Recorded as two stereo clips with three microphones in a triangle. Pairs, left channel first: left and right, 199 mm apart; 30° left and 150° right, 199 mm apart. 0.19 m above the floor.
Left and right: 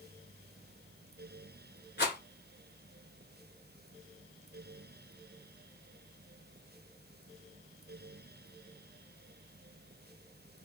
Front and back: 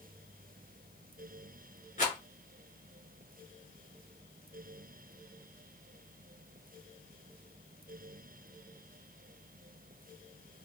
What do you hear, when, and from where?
2.0 s a rattle: 70° left, 1.5 m